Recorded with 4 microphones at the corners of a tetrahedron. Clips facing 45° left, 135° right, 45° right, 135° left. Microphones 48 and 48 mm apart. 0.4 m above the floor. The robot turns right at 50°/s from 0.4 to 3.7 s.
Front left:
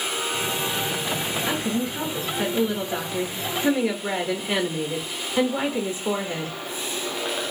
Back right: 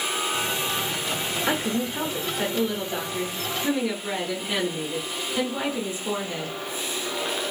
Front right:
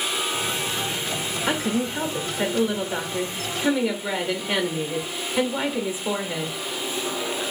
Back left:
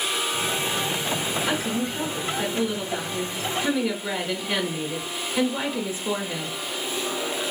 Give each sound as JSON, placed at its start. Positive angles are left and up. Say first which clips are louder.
{"t": 1.5, "sound": "a woman speaking", "louder": "back right 2 dB, front right 2 dB", "azimuth_deg": -90, "distance_m": 0.8}